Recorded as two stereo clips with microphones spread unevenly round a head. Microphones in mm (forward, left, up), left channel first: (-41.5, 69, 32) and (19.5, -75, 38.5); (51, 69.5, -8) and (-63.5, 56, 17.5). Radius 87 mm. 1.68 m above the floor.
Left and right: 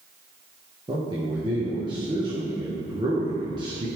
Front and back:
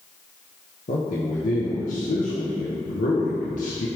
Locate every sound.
0.9 s a man speaking: 5° right, 1.4 m